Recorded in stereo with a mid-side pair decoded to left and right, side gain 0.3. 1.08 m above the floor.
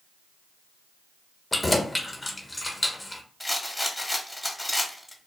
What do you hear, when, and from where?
1.5 s keys jangling: 20° left, 0.8 m
3.4 s a rattle: 15° left, 0.9 m